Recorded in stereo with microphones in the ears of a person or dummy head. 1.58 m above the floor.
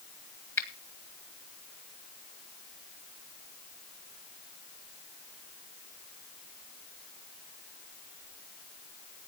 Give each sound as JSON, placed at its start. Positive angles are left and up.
{"t": 0.6, "sound": "a finger snap", "side_deg": 10, "distance_m": 1.8}